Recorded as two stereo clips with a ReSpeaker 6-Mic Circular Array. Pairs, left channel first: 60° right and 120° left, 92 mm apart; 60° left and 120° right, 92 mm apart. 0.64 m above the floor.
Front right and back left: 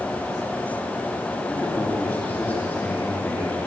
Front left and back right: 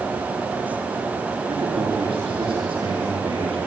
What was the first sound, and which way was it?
A man speaking, 130° right.